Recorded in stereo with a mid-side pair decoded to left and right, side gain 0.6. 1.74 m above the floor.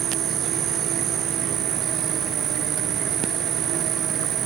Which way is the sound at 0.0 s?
50° right.